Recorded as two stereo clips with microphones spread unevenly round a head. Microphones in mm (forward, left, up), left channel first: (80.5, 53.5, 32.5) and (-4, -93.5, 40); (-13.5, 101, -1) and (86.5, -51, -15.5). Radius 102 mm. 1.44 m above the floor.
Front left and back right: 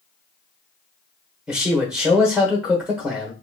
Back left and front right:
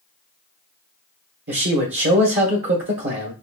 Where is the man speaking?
35° right, 1.1 m.